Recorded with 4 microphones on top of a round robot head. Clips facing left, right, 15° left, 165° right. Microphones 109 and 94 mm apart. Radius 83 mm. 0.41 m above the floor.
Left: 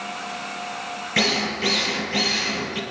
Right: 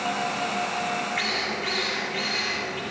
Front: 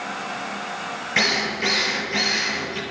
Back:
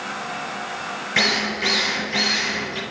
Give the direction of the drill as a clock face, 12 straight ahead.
8 o'clock.